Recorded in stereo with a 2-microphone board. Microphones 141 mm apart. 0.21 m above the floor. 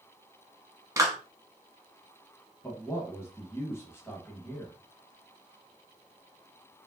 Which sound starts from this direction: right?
A clap, at 1.0 s.